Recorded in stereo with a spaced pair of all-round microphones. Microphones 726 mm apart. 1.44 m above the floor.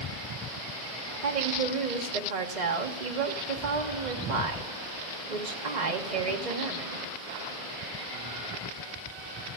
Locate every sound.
1.2 s a woman speaking: 75° right (ahead or behind), 1.1 m